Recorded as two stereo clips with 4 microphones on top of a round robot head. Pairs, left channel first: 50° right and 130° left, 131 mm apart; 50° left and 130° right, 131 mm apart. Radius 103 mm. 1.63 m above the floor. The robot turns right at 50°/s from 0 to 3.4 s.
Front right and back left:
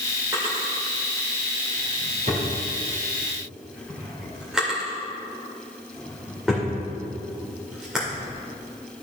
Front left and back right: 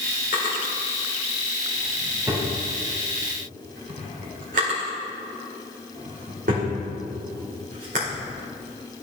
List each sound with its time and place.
0.3 s a drawer: 60° left, 1.8 m; by 8.2 s 145° right, 1.8 m